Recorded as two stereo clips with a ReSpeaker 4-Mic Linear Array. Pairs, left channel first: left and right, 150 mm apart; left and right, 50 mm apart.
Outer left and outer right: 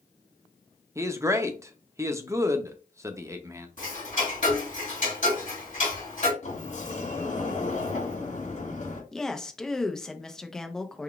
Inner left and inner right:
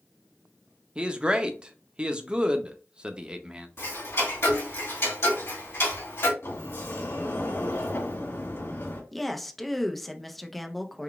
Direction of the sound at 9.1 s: 5° left (ahead or behind).